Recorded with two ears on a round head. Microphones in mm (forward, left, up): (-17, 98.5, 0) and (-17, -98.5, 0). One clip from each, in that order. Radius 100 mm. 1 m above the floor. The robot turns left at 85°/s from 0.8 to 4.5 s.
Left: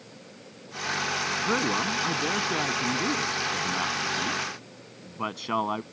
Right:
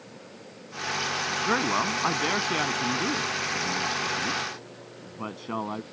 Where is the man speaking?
60° right; by 5.8 s 40° left.